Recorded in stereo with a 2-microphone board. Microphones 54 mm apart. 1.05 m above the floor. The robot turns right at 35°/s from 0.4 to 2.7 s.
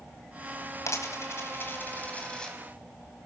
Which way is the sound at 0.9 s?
70° left (ahead or behind).